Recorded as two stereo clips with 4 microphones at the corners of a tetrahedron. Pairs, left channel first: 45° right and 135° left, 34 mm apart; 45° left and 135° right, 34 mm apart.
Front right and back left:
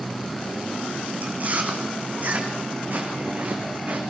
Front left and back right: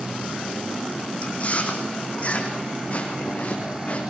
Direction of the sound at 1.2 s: 95° left.